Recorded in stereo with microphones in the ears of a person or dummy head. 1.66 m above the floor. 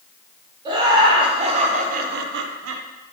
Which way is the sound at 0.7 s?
25° right (ahead or behind).